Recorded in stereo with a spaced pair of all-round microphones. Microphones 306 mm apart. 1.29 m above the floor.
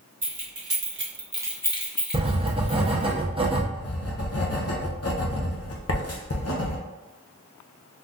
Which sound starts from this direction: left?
Writing, at 3.7 s.